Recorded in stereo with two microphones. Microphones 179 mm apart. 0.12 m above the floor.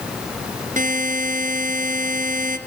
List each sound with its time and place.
0.8 s a buzzer: 50° right (ahead or behind), 1.6 m